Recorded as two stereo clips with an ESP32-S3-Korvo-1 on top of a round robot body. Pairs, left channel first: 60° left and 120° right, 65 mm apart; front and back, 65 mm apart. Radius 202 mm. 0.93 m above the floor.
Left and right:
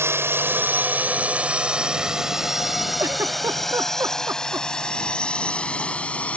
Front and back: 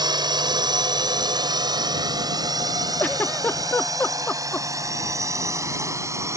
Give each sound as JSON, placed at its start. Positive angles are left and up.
{"t": 0.0, "sound": "a drone", "azimuth_deg": -175}
{"t": 3.0, "sound": "a giggle", "azimuth_deg": -65}